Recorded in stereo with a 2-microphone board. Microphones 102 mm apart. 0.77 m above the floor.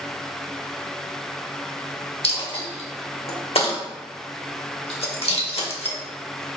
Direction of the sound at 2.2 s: 70° left (ahead or behind).